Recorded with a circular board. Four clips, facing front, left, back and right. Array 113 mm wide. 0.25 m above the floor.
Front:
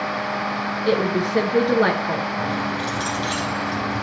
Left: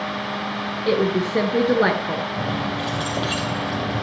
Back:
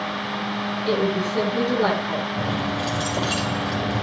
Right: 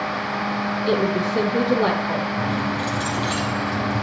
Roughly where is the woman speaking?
Ahead left.